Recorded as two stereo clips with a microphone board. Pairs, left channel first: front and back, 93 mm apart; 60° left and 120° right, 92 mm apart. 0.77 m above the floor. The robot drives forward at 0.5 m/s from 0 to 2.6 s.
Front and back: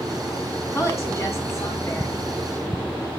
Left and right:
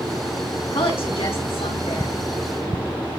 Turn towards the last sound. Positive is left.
turn(degrees=65)